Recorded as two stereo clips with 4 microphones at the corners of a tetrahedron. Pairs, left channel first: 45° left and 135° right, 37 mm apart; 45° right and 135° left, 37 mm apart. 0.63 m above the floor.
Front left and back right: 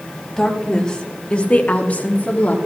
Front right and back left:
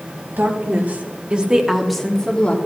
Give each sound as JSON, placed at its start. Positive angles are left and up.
{"t": 0.4, "sound": "a woman speaking", "azimuth_deg": 120, "distance_m": 2.0}